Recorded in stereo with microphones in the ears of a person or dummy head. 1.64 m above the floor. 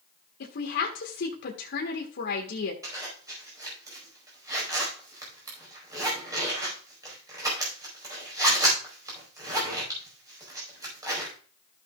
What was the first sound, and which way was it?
A woman speaking, 70° left (ahead or behind).